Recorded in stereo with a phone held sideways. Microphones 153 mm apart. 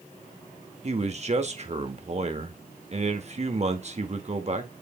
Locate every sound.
0.8 s a man speaking: 45° right (ahead or behind), 1.5 m